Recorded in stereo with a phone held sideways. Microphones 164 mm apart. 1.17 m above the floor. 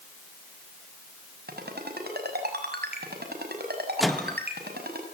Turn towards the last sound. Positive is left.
turn(degrees=0)  # may be behind; listen again after turning